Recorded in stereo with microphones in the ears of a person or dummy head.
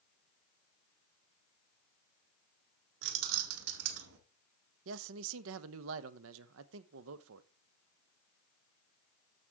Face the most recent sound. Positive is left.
turn(degrees=-70)  # may be behind; listen again after turning